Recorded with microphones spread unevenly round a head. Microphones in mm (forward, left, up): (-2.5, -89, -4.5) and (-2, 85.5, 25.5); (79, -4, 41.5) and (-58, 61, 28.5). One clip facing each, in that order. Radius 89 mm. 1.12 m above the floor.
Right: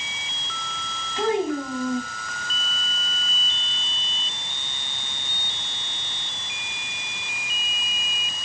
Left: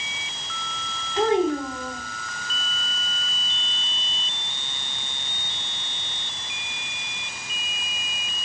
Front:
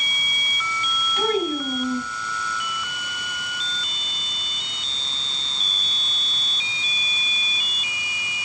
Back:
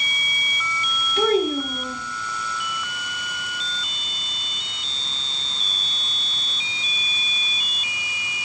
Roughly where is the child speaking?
Behind.